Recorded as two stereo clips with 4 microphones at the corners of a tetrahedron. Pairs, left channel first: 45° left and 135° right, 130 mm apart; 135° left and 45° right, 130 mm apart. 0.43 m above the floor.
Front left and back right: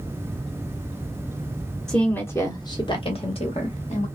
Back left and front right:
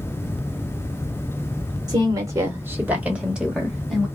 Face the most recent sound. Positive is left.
turn(degrees=45)